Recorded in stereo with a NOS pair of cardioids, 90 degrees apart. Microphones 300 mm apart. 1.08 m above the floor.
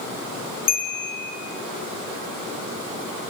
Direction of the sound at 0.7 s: 30° left.